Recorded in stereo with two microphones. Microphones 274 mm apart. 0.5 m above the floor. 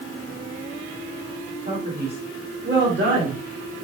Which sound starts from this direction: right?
A man speaking, at 1.6 s.